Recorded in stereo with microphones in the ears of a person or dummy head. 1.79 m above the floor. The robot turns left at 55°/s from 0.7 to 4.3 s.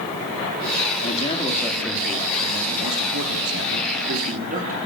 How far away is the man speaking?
About 4.5 m.